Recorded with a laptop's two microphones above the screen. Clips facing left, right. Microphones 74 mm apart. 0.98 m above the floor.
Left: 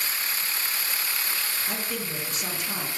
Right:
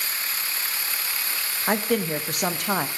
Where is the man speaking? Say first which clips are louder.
Right 9 dB; 60° right (ahead or behind), 0.6 m.